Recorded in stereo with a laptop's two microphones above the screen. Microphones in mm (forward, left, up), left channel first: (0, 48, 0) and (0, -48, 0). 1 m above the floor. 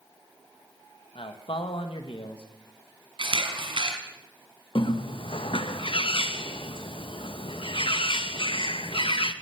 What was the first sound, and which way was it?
A man speaking, 65° left (ahead or behind).